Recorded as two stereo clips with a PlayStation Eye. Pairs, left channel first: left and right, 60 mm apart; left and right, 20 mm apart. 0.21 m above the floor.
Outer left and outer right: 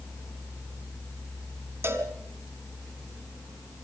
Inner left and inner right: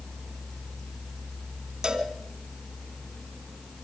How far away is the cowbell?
About 2.5 m.